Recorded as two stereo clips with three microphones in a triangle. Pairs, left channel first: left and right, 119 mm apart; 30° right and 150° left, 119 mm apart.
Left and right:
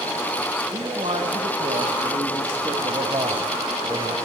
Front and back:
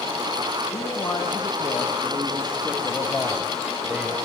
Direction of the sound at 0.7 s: 80° right.